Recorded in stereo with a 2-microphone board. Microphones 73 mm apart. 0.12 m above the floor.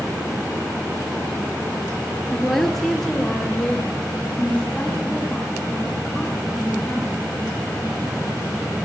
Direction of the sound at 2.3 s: Centre (ahead or behind).